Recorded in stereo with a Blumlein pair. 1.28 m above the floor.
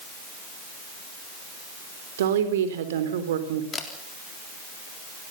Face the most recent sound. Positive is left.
turn(degrees=20)